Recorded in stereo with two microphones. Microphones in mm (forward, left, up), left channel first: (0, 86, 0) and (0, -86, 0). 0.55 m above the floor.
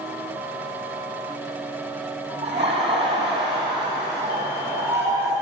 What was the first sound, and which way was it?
Laughter, 40° right (ahead or behind).